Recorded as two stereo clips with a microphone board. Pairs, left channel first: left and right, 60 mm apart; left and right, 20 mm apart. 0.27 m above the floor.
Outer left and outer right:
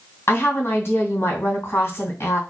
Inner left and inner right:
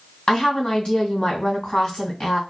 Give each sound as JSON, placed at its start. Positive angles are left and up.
{"t": 0.3, "sound": "a woman speaking", "side_deg": 50, "distance_m": 2.0}